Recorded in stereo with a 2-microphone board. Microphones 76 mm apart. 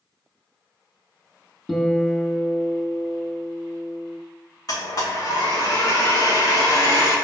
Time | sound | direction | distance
1.7 | a guitar | 5° left (ahead or behind) | 0.7 m
4.7 | a blender | 50° left (ahead or behind) | 2 m